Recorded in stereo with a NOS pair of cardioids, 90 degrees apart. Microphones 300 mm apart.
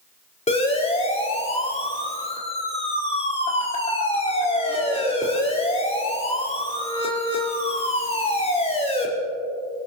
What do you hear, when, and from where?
0.5 s a siren: 20° left, 4.5 m